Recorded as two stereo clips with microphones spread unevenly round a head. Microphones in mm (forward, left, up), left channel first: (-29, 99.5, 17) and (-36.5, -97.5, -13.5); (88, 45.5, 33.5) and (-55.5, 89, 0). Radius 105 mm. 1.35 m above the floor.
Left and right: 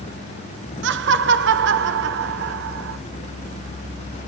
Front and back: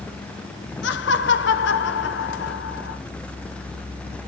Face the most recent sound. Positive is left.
turn(degrees=-50)